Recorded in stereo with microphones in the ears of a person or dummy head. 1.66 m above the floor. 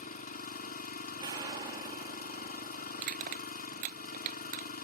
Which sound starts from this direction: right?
Crushing, at 3.0 s.